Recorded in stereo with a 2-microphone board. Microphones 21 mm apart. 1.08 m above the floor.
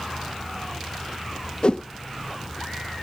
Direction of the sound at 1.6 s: 50° left (ahead or behind).